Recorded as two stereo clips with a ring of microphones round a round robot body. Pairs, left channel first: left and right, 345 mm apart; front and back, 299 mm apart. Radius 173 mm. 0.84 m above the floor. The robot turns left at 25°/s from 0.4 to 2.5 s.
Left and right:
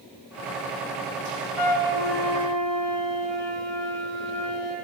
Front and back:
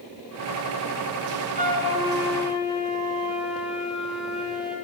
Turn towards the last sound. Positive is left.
turn(degrees=95)